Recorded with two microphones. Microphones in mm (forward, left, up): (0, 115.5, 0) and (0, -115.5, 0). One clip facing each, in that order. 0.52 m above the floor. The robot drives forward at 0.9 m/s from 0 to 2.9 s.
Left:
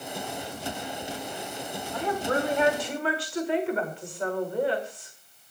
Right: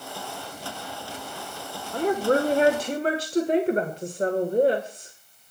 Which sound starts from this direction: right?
A woman speaking, at 1.9 s.